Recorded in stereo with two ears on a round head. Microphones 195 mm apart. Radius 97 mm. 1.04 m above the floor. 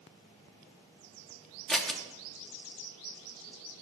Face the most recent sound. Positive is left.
turn(degrees=0)  # may be behind; listen again after turning